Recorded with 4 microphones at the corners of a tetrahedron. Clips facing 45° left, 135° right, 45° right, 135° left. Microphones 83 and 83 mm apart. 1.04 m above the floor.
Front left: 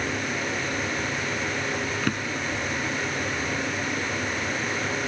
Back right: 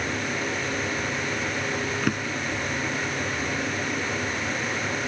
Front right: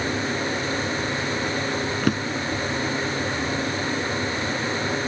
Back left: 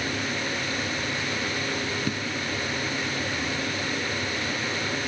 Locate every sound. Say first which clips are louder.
2.0 s a drawer: back right 1 dB, front right 6 dB; 50° right